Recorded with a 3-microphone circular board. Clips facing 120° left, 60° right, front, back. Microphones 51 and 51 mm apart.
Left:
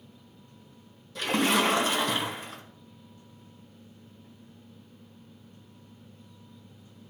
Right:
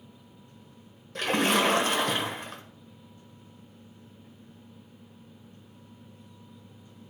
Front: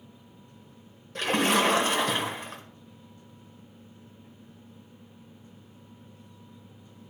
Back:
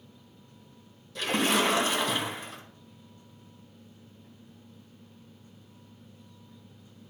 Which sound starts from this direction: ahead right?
A splash, at 1.1 s.